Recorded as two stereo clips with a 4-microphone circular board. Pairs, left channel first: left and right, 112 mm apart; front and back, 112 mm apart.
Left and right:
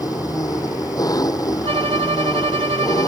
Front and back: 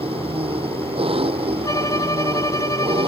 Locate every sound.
0.0 s an engine running: 150° left
1.6 s a violin: 55° right